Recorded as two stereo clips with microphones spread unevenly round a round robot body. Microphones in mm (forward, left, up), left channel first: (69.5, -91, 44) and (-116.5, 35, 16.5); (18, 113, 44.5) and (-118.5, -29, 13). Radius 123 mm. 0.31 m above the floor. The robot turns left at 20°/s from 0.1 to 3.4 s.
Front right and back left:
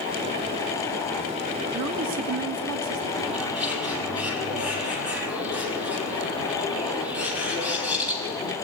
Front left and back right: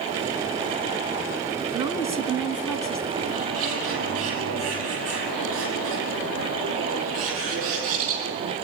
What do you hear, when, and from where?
1.7 s a woman speaking: 160° left, 4 m; by 3.1 s 130° left, 4 m
3.2 s a bird: 125° right, 5.5 m; by 8.5 s 130° right, 5.5 m